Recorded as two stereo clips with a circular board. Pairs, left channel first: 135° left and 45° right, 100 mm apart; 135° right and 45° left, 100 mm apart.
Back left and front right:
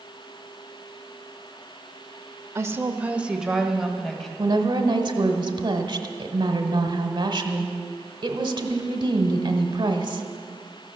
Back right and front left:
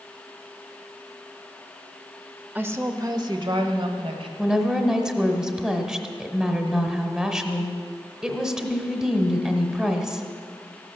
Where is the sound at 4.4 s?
35° right, 1.4 m.